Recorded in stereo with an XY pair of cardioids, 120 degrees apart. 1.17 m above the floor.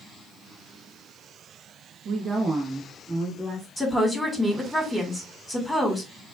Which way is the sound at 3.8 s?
5° left.